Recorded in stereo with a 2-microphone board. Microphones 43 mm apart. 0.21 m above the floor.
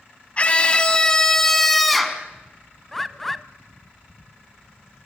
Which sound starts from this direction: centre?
A bird, at 2.9 s.